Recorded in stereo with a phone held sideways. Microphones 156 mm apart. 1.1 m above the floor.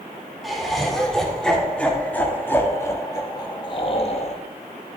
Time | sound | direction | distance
0.4 | laughter | centre (ahead or behind) | 3.5 m